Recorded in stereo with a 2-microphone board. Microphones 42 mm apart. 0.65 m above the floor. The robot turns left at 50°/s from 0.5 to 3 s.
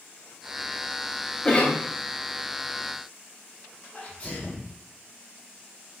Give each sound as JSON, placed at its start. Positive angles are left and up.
{"t": 1.4, "sound": "a cough", "side_deg": 25, "distance_m": 1.8}
{"t": 3.9, "sound": "a sneeze", "side_deg": 25, "distance_m": 3.5}